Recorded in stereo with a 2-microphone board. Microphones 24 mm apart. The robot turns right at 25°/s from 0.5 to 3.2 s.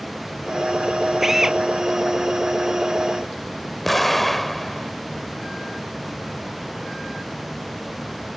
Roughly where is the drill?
Centre.